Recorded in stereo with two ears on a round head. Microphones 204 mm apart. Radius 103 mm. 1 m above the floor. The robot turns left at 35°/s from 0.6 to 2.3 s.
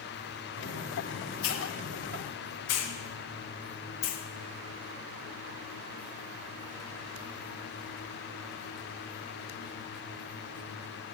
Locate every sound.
1.4 s a hiss: 65° left (ahead or behind), 1.1 m; by 4.2 s 75° left (ahead or behind), 1.1 m